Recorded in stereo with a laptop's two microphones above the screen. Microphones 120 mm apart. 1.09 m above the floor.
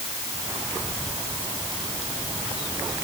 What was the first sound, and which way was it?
Only background noise.